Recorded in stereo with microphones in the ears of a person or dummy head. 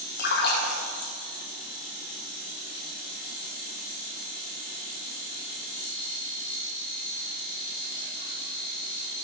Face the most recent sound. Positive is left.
turn(degrees=55)  # may be behind; listen again after turning